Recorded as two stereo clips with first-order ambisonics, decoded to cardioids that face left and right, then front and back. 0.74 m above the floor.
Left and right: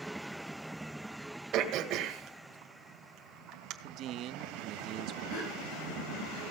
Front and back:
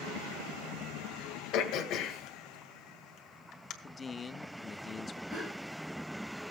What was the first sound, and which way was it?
Throat clearing, 45° right.